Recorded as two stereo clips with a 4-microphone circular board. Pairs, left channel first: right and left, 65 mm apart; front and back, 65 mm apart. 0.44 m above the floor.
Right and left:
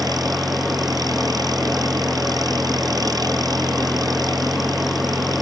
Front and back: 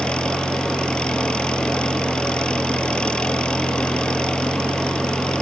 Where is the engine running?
75° left.